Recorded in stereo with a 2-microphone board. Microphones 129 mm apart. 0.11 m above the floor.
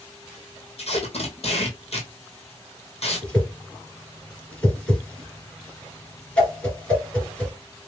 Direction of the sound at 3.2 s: 10° left (ahead or behind).